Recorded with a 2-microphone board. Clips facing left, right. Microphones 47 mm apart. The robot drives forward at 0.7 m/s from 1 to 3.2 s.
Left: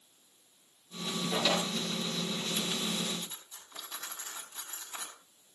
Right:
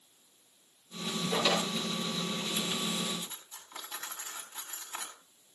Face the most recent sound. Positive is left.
turn(degrees=-30)  # may be behind; listen again after turning